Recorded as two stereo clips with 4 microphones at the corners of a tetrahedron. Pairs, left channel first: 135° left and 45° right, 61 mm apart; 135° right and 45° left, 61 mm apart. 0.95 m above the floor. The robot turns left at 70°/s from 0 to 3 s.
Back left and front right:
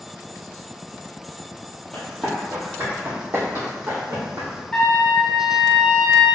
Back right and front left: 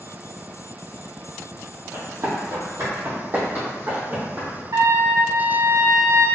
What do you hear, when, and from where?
1.9 s running footsteps: 80° left, 1.4 m; by 4.6 s 20° right, 2.5 m
4.7 s a trumpet: 60° left, 0.7 m